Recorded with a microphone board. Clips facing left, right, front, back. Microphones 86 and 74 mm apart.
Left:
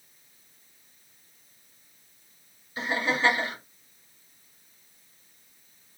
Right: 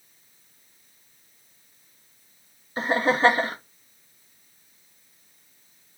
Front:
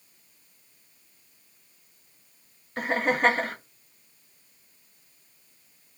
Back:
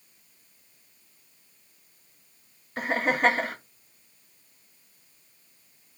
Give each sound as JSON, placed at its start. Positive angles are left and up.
{"t": 2.8, "sound": "laughter", "azimuth_deg": -90, "distance_m": 0.5}